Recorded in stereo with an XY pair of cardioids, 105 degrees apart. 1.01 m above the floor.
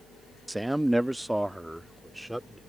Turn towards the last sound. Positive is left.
turn(degrees=-10)